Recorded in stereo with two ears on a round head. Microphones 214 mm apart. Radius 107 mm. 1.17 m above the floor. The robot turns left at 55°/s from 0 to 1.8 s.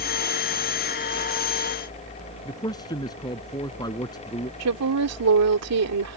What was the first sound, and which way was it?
A man speaking, 15° left (ahead or behind).